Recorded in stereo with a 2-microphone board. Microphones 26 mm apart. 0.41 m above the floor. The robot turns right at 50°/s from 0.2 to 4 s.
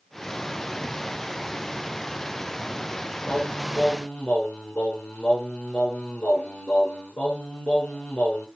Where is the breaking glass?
I don't hear breaking glass.